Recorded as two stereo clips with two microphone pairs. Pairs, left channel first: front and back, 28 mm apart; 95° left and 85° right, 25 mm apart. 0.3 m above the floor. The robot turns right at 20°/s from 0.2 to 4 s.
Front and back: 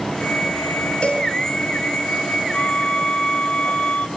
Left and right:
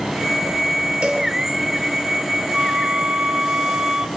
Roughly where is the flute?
Ahead right.